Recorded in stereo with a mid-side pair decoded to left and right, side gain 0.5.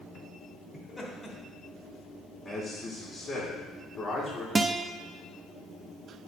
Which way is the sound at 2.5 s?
25° left.